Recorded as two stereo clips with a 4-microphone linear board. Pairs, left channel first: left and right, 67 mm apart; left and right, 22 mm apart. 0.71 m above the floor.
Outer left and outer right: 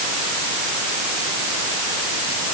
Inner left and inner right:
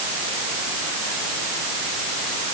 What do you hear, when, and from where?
Only background noise.